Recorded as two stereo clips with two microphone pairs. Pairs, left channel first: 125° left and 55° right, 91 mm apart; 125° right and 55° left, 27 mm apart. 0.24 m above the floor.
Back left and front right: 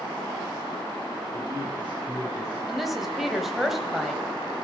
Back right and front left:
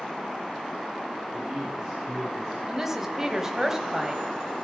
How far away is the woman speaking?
About 1.1 m.